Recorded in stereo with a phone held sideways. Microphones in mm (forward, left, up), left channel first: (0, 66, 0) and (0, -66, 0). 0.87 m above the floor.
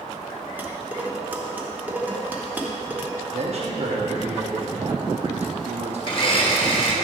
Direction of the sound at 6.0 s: 40° left (ahead or behind).